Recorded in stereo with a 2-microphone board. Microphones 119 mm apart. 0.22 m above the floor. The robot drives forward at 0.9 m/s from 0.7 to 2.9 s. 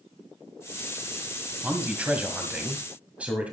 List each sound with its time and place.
1.6 s a man speaking: 10° right (ahead or behind), 1.6 m